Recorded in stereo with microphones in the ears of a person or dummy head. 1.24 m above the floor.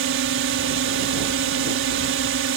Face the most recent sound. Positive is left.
turn(degrees=-60)  # may be behind; listen again after turning